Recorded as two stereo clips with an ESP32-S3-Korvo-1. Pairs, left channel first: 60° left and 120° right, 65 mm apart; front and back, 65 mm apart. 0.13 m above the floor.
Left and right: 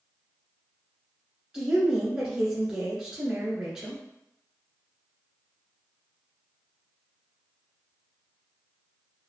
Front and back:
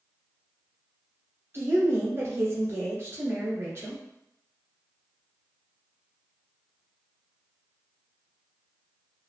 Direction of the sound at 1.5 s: 160° left.